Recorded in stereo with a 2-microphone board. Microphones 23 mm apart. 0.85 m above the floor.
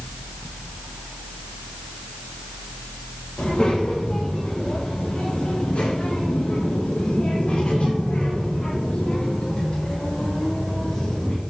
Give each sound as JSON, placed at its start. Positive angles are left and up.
{"t": 3.4, "sound": "a child speaking", "side_deg": 55, "distance_m": 3.0}